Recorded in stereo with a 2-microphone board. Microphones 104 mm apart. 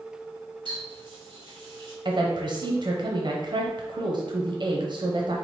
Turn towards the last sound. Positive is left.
turn(degrees=-45)  # may be behind; listen again after turning